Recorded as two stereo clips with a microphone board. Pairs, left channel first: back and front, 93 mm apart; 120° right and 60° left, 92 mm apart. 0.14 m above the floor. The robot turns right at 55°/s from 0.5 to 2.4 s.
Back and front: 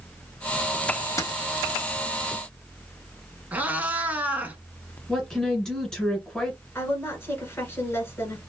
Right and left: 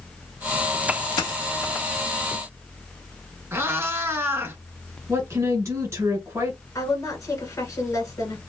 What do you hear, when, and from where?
1.2 s a dropped coin: 135° right, 0.8 m; by 1.4 s 125° right, 0.8 m
3.5 s a cat meowing: 50° left, 0.7 m
5.1 s a woman speaking: 100° left, 1.4 m
6.8 s a woman speaking: 135° right, 1.4 m